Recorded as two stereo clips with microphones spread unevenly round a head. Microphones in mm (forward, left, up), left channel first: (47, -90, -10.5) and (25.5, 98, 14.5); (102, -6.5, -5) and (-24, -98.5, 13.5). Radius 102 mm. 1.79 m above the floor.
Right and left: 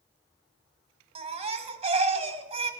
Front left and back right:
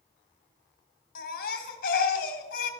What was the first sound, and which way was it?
A baby crying, 55° left.